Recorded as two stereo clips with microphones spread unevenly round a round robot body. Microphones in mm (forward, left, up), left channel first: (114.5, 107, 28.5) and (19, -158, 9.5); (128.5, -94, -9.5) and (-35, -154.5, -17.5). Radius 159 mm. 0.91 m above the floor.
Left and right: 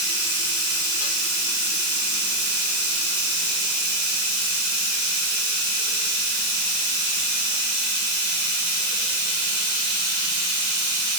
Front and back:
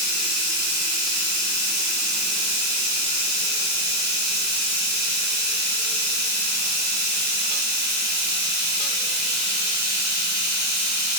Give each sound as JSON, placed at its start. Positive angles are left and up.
{"t": 0.0, "sound": "running water", "azimuth_deg": -140, "distance_m": 4.5}